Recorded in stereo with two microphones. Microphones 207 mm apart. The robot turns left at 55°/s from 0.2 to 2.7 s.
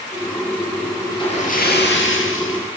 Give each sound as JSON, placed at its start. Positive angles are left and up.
{"t": 1.1, "sound": "a splash", "azimuth_deg": 160, "distance_m": 5.5}